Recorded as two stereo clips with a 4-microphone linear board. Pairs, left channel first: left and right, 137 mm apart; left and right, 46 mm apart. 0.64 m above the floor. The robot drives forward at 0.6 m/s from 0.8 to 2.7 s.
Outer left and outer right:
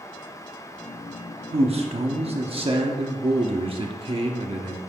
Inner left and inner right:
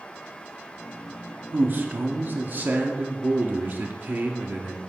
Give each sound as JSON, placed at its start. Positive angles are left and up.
{"t": 1.5, "sound": "a man speaking", "side_deg": -45, "distance_m": 1.0}